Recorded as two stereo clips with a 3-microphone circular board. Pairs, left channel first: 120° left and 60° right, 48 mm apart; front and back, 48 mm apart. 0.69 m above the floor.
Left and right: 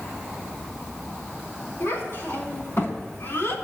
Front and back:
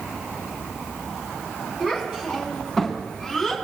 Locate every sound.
1.8 s a child speaking: 105° left, 5.5 m; by 3.5 s 95° left, 5 m